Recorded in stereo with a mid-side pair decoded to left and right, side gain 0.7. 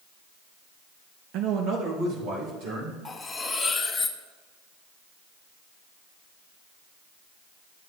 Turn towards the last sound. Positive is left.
turn(degrees=15)